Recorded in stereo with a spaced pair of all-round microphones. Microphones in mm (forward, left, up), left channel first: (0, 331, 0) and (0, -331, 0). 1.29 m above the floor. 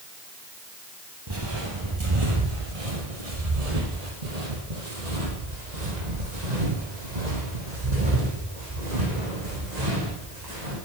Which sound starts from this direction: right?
Footsteps, at 1.3 s.